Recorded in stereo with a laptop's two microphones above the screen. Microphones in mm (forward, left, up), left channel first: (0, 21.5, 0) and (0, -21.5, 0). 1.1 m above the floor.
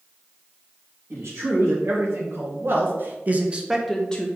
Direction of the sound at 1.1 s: 75° right (ahead or behind).